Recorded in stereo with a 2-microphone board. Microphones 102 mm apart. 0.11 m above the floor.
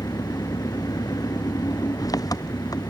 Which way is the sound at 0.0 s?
40° left (ahead or behind).